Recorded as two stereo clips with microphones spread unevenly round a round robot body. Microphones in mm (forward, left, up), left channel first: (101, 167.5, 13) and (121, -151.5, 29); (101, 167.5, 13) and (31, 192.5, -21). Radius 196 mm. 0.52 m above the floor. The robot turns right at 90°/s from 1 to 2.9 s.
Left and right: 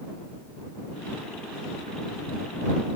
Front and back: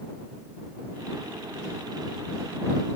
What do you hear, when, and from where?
Only background noise.